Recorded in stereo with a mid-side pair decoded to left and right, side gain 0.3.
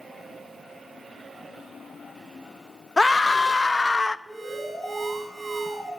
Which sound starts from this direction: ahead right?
An alarm, at 4.3 s.